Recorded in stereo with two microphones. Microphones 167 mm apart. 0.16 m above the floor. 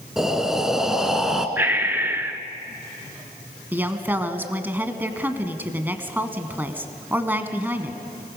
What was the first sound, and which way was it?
Breathing, 5° right (ahead or behind).